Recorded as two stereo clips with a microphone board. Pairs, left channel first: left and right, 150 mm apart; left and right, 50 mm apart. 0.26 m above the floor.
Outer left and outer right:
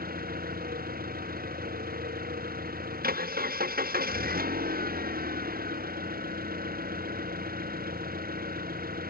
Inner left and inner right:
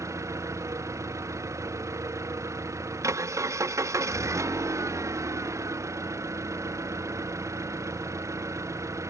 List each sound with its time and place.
0.0 s an engine running: 70° right (ahead or behind)